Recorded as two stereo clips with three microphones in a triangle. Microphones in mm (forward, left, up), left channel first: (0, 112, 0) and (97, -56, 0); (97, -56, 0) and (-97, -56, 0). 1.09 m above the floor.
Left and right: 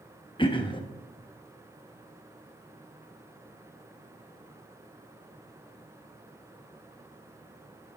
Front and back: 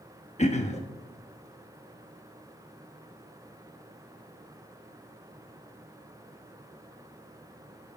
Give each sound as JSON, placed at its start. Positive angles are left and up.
{"t": 0.4, "sound": "throat clearing", "azimuth_deg": 55, "distance_m": 1.1}